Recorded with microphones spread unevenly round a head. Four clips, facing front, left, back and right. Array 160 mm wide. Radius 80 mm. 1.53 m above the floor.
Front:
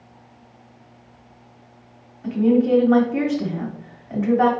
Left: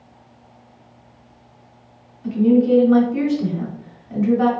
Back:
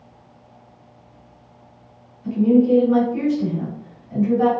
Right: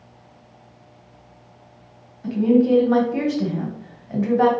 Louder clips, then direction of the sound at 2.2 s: Left 1 dB, back 2 dB; 35° right.